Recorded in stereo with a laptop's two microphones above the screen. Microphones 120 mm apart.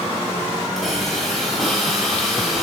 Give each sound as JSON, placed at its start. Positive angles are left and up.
{"t": 0.8, "sound": "a hiss", "side_deg": 0, "distance_m": 7.0}